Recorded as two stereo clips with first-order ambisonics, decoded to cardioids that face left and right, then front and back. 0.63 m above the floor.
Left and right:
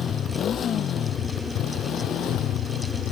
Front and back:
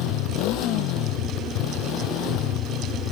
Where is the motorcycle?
30° left; by 3.1 s 45° left.